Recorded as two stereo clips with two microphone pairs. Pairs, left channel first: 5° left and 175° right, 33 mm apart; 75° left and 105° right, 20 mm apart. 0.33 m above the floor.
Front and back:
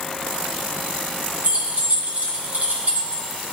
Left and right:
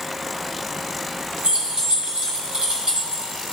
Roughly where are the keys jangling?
Behind right.